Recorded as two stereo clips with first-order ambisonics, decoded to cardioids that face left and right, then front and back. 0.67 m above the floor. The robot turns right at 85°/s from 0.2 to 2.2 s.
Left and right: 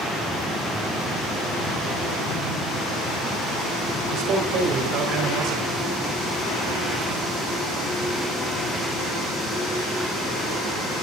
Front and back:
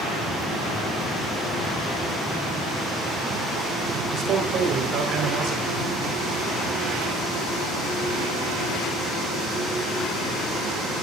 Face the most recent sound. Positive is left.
turn(degrees=-130)